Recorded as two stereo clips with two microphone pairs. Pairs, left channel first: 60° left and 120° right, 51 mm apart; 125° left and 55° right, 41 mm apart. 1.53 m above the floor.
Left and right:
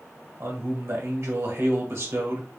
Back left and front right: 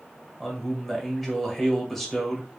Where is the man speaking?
150° right, 1.8 m.